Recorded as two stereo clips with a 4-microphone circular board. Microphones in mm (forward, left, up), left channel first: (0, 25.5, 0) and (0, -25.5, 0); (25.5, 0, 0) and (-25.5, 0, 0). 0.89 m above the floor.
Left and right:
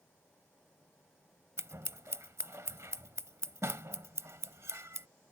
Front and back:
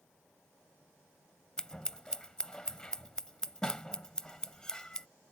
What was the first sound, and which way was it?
Scissors, 70° right.